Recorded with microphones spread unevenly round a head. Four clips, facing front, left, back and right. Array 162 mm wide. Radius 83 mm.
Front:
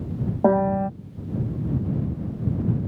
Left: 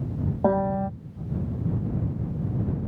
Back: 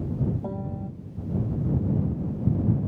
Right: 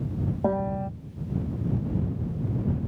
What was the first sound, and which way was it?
A piano, 10° left.